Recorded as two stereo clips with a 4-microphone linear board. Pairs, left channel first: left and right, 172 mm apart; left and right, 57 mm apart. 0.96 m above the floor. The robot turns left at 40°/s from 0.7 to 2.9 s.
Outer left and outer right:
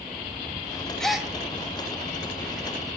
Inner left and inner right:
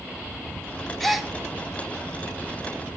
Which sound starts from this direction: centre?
A gasp, at 1.0 s.